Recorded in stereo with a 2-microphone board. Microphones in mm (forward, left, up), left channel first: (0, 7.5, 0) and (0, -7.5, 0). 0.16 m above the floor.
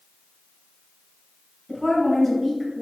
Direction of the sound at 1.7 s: Centre (ahead or behind).